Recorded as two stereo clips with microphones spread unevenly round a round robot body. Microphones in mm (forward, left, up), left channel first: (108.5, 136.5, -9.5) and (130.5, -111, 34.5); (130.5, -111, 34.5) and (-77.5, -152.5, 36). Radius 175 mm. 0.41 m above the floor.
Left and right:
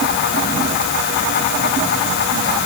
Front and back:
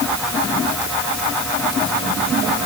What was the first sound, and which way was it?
Only background noise.